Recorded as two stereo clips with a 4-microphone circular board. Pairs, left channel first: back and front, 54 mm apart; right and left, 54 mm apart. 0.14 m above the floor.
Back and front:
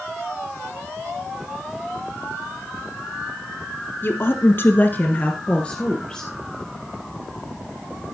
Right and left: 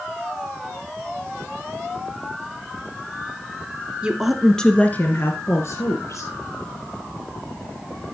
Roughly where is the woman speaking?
Behind left.